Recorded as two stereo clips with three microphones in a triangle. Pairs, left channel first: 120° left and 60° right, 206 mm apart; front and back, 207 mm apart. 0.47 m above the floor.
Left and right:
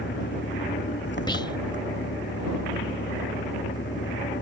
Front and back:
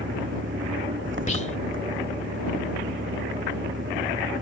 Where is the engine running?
155° left.